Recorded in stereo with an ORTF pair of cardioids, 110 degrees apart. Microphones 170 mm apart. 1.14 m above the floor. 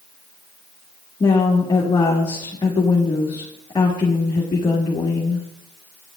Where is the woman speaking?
25° left, 1.6 m.